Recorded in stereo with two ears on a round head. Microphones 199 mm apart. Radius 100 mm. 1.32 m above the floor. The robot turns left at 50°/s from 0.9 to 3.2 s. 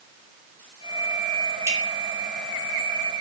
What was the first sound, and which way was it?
Dripping, 10° right (ahead or behind).